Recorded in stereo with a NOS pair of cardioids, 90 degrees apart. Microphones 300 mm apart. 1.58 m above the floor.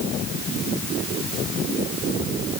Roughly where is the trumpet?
No trumpet in this recording.